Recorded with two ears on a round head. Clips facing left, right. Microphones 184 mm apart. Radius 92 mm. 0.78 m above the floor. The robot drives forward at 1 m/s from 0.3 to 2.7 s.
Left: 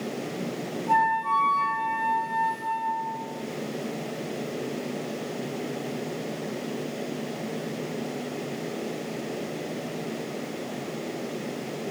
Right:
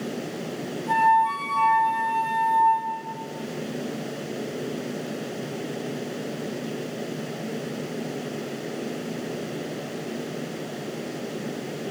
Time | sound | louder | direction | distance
0.9 | a flute | right 4 dB | 45° right (ahead or behind) | 3 m